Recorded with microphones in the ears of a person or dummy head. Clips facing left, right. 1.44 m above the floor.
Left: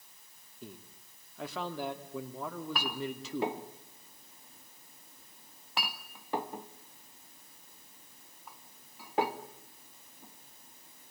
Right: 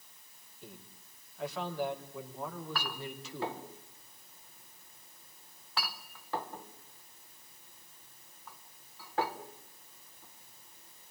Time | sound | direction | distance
0.6 | a man speaking | 70° left (ahead or behind) | 3 m
2.4 | a clink | 20° left (ahead or behind) | 1.1 m